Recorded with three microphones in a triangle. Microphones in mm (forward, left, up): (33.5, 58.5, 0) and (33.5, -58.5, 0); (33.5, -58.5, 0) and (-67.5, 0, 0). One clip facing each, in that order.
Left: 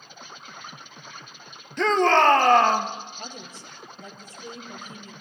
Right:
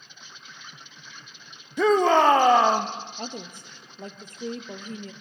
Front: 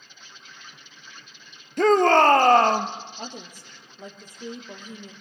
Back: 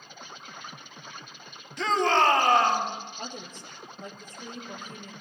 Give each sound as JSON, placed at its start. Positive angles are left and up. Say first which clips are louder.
{"t": 0.0, "sound": "an insect", "louder": "left 6 dB, back 6 dB", "azimuth_deg": 125, "distance_m": 0.7}
{"t": 1.8, "sound": "a shout", "louder": "right 1 dB, front 7 dB", "azimuth_deg": -15, "distance_m": 1.7}
{"t": 3.2, "sound": "a woman speaking", "louder": "right 4 dB, front 1 dB", "azimuth_deg": -105, "distance_m": 2.5}